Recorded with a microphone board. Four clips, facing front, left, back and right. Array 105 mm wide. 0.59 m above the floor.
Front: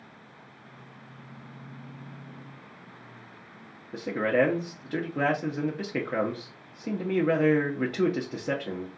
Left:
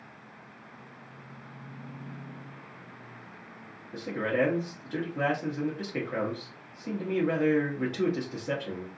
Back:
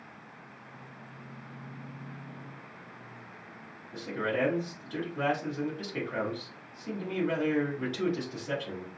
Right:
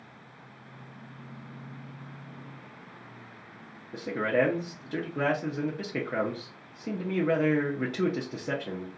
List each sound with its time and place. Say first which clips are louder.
3.9 s a man speaking: right 2 dB, front 7 dB; 15° right, 0.7 m